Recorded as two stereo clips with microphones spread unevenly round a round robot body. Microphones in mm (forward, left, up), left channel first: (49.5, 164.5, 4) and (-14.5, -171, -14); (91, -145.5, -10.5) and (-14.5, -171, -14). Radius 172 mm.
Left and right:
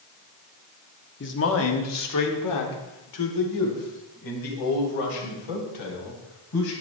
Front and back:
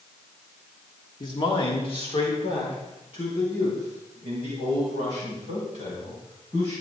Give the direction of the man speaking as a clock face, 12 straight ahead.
11 o'clock.